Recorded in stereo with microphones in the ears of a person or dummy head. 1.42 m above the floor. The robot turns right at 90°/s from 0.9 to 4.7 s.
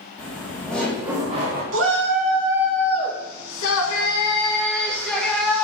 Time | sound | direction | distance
0.2 | laughter | 175° left | 2 m
1.7 | a shout | 90° right | 2.5 m